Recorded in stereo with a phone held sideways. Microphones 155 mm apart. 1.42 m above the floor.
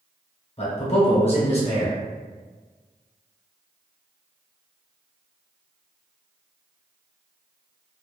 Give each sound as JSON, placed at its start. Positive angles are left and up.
{"t": 0.6, "sound": "a man speaking", "side_deg": 40, "distance_m": 1.1}